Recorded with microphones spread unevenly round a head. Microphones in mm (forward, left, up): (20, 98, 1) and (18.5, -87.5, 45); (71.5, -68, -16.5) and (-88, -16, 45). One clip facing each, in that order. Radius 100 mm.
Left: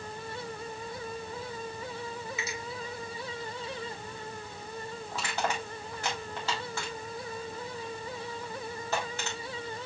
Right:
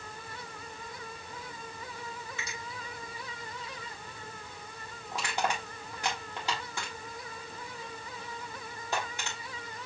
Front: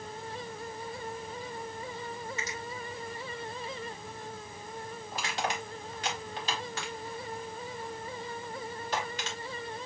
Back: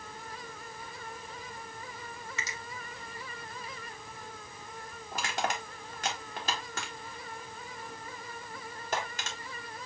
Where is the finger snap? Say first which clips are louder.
Left 6 dB, front 4 dB; 175° left, 1.4 m.